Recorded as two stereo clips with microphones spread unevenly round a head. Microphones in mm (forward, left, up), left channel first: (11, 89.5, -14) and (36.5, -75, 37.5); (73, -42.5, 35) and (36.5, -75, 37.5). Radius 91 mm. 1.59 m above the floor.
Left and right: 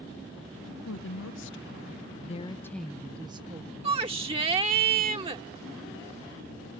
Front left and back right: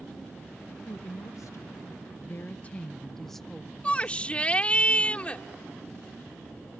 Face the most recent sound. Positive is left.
turn(degrees=-25)